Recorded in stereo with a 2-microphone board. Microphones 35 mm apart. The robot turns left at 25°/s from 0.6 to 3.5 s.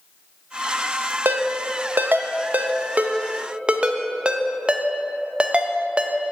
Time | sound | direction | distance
1.2 | a ringtone | 65° right (ahead or behind) | 0.6 m